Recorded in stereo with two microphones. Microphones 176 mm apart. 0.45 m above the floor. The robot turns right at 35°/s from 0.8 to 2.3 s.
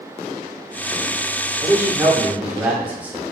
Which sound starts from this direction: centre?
A man speaking, at 1.6 s.